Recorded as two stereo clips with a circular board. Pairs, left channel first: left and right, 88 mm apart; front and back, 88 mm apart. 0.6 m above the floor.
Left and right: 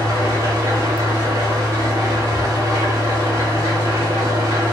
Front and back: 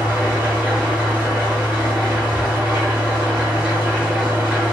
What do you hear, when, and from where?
0.0 s an engine running: 110° right, 1.1 m